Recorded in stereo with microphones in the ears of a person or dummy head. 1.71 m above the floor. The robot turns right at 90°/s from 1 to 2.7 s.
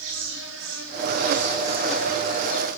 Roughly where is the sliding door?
I don't hear a sliding door.